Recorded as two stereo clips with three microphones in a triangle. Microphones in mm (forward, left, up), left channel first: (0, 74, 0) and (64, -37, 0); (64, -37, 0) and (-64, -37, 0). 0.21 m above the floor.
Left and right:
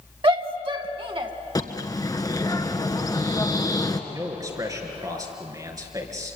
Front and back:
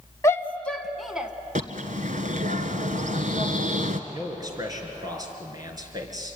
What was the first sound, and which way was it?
A shout, 55° right.